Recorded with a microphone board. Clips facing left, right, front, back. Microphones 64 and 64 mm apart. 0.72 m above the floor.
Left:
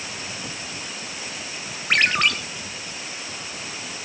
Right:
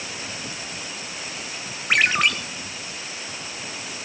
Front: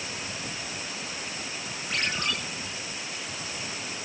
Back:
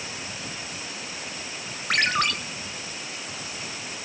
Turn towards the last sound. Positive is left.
turn(degrees=-175)